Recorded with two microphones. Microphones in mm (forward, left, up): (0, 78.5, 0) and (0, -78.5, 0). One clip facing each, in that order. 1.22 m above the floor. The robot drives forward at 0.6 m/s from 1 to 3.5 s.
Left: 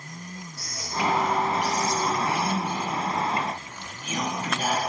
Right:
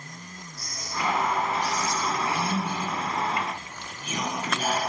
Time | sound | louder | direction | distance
0.6 | whispering | left 3 dB | 90° left | 1.3 m